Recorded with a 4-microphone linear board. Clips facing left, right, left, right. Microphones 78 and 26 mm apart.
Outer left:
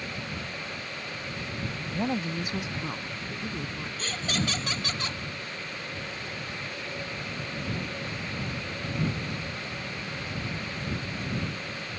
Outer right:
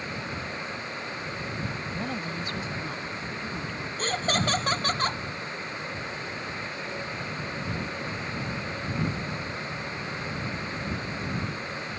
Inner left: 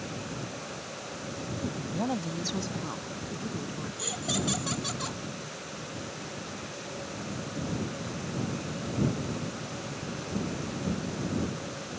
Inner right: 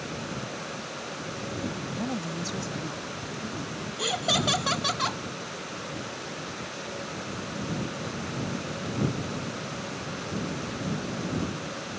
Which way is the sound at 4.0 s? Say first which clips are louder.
Outer right 5 dB, inner right 7 dB; 40° right (ahead or behind).